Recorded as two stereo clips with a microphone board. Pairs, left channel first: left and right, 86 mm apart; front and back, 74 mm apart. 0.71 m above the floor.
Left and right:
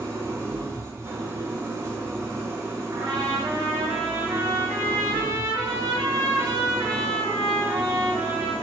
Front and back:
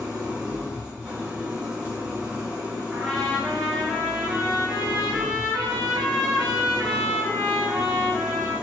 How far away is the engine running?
About 0.7 m.